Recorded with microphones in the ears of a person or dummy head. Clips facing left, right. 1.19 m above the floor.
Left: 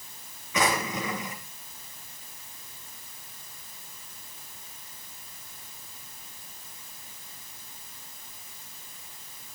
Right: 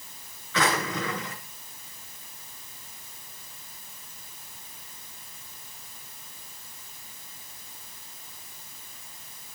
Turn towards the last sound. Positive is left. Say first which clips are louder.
# even
turn(degrees=20)  # may be behind; listen again after turning